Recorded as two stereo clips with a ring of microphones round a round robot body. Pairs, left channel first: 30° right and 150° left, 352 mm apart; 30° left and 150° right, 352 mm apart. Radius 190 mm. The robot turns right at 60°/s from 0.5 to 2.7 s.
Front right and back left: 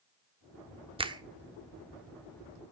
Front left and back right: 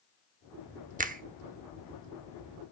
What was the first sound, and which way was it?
A finger snap, 165° right.